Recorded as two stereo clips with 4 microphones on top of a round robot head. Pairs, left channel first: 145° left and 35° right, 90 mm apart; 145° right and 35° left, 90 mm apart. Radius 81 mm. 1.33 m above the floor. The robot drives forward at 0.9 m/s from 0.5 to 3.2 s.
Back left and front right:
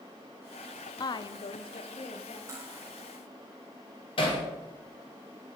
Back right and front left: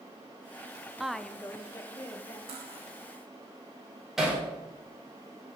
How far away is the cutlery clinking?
About 1.8 m.